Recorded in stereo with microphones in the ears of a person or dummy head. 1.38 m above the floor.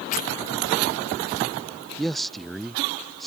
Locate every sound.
0.1 s tearing paper: 45° left (ahead or behind)
2.0 s a man speaking: 5° left (ahead or behind)